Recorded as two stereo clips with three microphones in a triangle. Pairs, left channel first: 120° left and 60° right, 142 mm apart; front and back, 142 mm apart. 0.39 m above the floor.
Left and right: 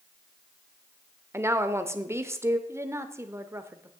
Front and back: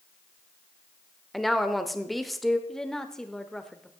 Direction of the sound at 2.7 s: 80° right.